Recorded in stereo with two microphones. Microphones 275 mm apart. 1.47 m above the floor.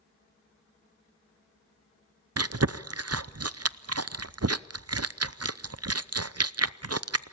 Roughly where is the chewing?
Right.